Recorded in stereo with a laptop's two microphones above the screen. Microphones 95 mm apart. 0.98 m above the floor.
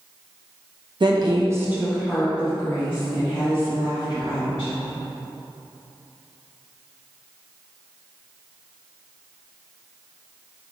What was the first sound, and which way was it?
A woman speaking, 55° right (ahead or behind).